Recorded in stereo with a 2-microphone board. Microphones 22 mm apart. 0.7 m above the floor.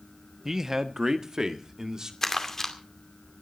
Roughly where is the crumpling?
Left.